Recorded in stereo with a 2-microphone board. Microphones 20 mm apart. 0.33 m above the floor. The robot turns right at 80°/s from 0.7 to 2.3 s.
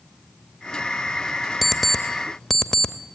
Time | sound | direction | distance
1.6 | an alarm clock | 5° right (ahead or behind) | 0.7 m